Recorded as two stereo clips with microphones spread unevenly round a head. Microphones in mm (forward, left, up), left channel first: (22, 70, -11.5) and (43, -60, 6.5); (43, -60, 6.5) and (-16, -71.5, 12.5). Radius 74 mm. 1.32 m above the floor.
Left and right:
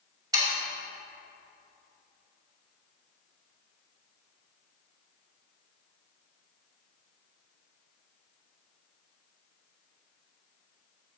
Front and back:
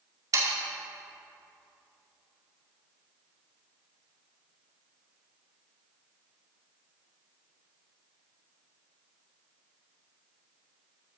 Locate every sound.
0.3 s sawing: 145° right, 2 m